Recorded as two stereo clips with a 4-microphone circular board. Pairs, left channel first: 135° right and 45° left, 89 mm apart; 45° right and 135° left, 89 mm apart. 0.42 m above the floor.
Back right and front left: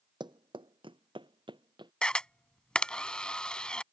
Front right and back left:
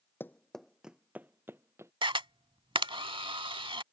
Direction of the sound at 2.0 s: 145° left.